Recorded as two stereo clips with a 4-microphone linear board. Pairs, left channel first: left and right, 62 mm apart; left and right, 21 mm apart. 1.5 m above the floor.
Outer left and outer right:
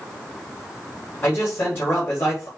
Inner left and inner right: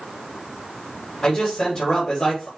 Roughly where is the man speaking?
Left.